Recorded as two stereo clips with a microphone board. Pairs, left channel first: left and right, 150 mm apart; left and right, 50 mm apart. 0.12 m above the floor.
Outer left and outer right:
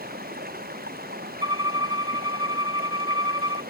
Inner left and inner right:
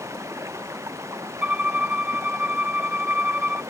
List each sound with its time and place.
0.0 s running water: 85° right
1.4 s a violin: 25° right (ahead or behind)